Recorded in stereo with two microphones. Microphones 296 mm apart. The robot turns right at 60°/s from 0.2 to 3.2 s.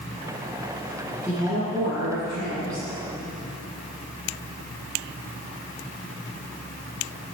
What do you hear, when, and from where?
1.2 s a woman speaking: straight behind, 3.5 m; by 2.9 s 80° right, 3.5 m